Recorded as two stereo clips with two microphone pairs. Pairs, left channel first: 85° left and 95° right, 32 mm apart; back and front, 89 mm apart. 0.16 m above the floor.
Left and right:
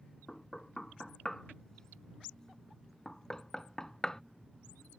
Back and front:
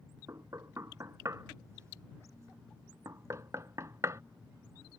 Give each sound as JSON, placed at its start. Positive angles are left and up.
{"t": 0.3, "sound": "knocking", "azimuth_deg": 30}